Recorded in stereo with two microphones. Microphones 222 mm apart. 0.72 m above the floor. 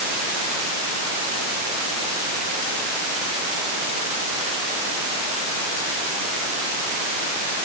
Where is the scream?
No scream in this recording.